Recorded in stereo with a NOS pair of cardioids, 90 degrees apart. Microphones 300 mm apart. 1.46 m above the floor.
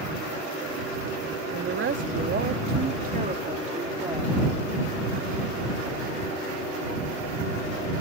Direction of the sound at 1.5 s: 45° right.